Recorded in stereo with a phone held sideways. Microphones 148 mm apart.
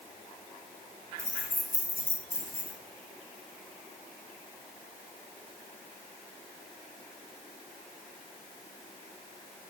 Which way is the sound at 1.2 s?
65° left (ahead or behind).